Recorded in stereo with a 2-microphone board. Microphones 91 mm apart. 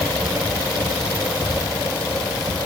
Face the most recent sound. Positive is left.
No sound to turn to.